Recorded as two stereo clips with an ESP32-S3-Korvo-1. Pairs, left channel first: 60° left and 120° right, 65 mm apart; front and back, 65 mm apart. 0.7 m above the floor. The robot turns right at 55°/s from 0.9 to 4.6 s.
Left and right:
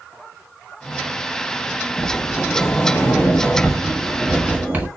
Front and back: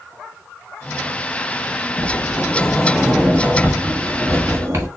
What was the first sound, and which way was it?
A sliding door, 40° left.